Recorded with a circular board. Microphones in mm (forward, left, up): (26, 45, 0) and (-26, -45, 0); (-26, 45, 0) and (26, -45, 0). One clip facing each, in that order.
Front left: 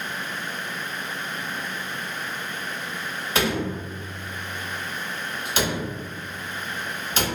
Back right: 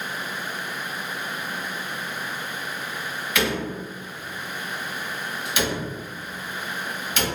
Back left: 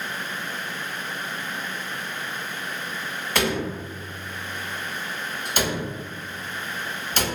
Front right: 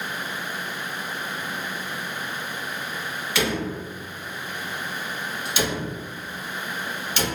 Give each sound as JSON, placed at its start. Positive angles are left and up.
{"t": 3.4, "sound": "a door slam", "azimuth_deg": 105, "distance_m": 0.9}